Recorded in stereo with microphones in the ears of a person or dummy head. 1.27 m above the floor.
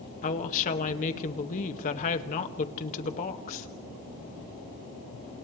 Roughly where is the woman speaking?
Left.